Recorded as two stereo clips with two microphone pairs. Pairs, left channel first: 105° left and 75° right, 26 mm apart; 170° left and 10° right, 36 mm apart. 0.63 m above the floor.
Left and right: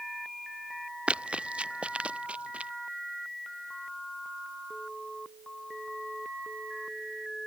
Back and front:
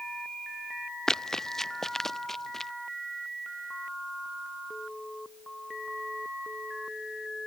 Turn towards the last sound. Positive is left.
turn(degrees=-110)